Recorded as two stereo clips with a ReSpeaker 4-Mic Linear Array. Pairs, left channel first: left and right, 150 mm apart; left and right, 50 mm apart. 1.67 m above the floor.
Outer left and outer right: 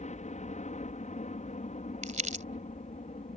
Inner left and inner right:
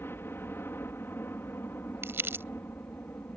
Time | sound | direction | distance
0.0 | a helicopter | 50° left (ahead or behind) | ?
2.0 | crumpling | 55° right (ahead or behind) | ?